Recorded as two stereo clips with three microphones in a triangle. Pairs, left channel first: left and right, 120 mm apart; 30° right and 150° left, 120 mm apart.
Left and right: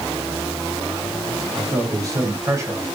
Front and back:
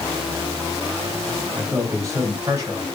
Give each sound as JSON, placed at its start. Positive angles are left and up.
{"t": 1.6, "sound": "a man speaking", "azimuth_deg": -140, "distance_m": 7.0}